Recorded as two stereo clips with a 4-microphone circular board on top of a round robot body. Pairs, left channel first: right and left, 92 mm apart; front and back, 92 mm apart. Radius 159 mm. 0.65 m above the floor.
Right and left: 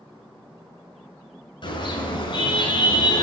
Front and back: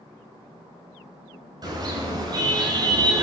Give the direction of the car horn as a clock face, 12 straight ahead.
4 o'clock.